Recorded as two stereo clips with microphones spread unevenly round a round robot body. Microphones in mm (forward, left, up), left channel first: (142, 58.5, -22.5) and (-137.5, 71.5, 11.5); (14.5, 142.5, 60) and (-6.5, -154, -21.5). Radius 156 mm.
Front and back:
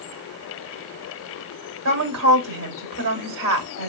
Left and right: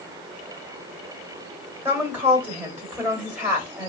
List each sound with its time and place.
1.9 s a woman speaking: 170° right, 1.4 m